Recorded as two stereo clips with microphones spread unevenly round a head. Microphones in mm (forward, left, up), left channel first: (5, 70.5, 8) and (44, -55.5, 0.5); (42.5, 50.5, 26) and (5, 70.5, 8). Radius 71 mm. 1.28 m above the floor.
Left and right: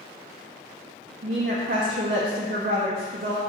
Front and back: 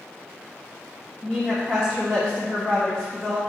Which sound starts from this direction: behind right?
A woman speaking, at 1.2 s.